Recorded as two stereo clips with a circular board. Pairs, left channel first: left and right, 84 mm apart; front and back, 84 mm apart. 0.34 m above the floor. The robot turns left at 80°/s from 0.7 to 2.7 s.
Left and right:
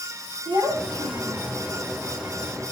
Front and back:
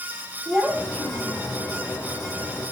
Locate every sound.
0.5 s a child speaking: 95° right, 5.5 m; by 1.6 s 165° right, 5.5 m